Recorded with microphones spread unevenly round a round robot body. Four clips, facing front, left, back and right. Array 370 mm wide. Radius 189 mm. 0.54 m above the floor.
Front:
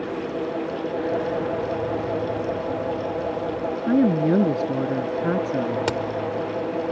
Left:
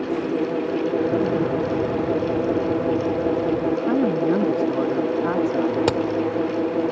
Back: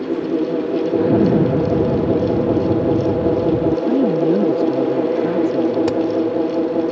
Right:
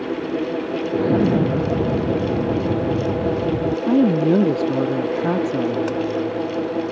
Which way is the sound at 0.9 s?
150° right.